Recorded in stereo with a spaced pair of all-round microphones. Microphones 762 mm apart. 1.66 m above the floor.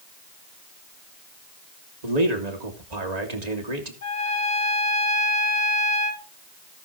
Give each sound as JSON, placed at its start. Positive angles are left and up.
{"t": 2.0, "sound": "a man speaking", "side_deg": -60, "distance_m": 2.0}
{"t": 4.0, "sound": "a trumpet", "side_deg": 60, "distance_m": 1.7}